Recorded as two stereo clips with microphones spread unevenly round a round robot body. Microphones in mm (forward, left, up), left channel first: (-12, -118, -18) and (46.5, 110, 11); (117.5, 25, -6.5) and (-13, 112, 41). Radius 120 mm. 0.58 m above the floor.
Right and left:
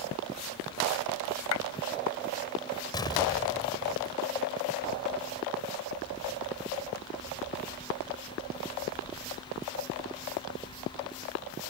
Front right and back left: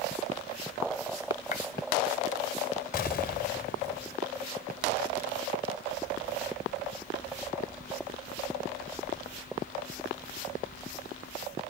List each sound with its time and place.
1.5 s a clap: 90° right
2.9 s an explosion: 30° right